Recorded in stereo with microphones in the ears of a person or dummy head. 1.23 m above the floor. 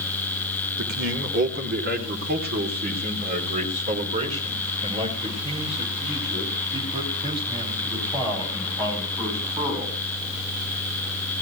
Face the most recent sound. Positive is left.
turn(degrees=-20)  # may be behind; listen again after turning